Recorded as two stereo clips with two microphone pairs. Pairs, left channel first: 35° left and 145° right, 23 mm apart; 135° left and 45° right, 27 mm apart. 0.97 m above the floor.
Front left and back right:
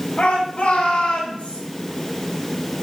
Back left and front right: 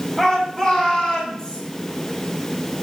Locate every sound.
0.2 s a shout: 55° left, 6.5 m; by 1.6 s 65° left, 6.5 m